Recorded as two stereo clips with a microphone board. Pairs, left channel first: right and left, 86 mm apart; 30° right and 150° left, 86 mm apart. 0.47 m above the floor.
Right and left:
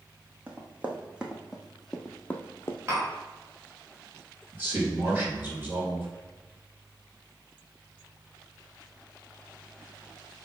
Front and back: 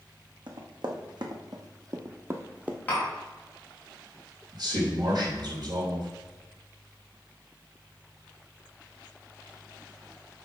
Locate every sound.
0.5 s running footsteps: 160° left, 1.6 m; by 2.8 s 135° right, 0.8 m
2.9 s tapping: 35° left, 3 m
4.5 s a man speaking: 145° left, 2.5 m